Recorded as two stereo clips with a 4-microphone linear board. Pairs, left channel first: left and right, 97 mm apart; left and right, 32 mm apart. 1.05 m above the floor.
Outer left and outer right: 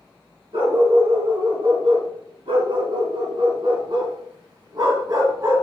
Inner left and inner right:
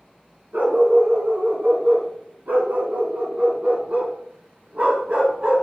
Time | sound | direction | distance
0.5 | a dog barking | 80° right | 4 m